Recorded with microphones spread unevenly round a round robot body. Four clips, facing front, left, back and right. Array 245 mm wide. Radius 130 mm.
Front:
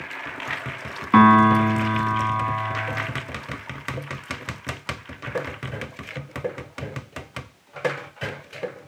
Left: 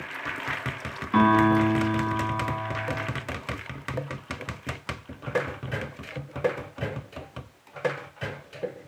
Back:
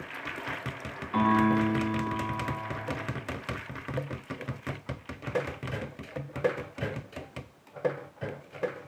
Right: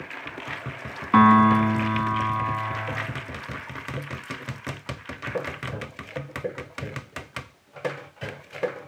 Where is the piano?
20° right, 2.5 m.